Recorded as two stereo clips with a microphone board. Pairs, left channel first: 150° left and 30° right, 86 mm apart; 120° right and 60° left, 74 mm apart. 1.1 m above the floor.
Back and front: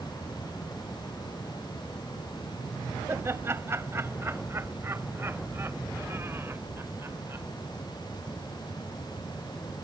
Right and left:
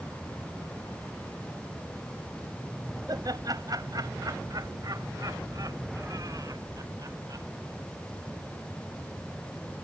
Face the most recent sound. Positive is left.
turn(degrees=30)